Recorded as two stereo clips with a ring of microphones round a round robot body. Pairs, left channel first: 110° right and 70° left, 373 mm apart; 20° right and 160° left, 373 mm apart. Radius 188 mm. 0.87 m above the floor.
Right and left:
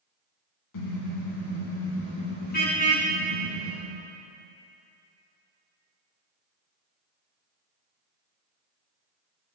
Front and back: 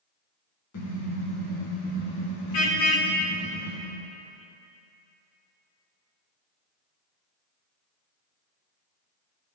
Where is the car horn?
75° right, 4.5 m; by 3.8 s 30° right, 6 m.